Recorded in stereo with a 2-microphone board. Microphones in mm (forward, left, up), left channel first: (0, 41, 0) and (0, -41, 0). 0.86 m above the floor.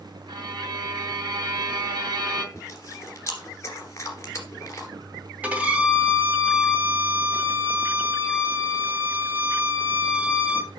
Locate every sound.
0.3 s a violin: 60° right (ahead or behind), 2.0 m
2.5 s chewing: 35° left (ahead or behind), 2 m
5.4 s a violin: 20° right (ahead or behind), 1.9 m